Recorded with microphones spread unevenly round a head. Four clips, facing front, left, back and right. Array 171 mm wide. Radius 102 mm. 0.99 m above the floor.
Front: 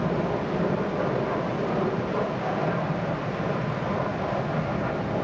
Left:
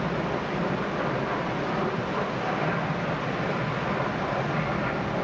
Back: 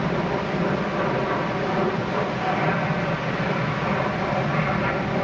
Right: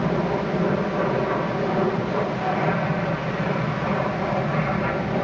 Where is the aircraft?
95° right; by 5.2 s 130° right.